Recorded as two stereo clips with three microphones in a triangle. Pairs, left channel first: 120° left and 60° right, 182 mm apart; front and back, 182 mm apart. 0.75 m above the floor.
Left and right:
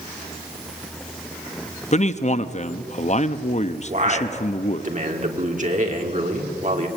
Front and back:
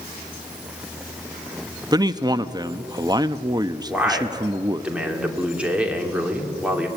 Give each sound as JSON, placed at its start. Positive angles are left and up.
{"t": 1.9, "sound": "a man speaking", "azimuth_deg": 125, "distance_m": 0.7}
{"t": 3.9, "sound": "a man speaking", "azimuth_deg": -95, "distance_m": 2.5}